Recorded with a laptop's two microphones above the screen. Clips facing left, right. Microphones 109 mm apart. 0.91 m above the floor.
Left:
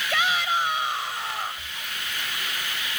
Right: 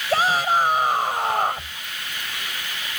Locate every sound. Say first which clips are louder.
0.1 s a shout: right 6 dB; 40° right (ahead or behind); by 1.8 s 60° right (ahead or behind)